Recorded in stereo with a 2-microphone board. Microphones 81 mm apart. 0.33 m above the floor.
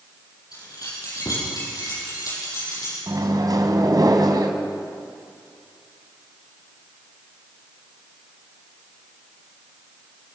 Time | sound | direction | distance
0.5 | keys jangling | 55° left (ahead or behind) | 8.5 m
3.1 | a microwave | 55° right (ahead or behind) | 2.0 m